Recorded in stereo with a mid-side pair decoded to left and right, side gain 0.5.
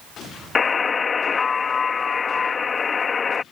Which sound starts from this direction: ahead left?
A buzzer, at 0.6 s.